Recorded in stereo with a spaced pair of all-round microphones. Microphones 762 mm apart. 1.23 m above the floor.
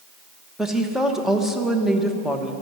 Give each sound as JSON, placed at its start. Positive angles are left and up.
{"t": 0.6, "sound": "a woman speaking", "side_deg": 0, "distance_m": 1.4}